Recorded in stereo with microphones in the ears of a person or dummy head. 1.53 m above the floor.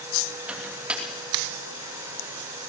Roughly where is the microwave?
Centre.